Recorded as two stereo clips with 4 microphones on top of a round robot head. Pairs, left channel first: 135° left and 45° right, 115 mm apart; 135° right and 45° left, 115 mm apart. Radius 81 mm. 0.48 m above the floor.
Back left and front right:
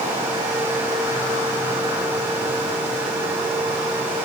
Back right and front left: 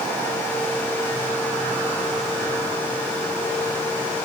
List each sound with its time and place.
Only background noise.